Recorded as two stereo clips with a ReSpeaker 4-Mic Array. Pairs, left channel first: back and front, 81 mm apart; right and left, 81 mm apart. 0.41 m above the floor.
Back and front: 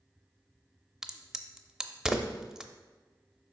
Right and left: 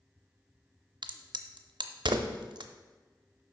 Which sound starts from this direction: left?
A crack, at 1.0 s.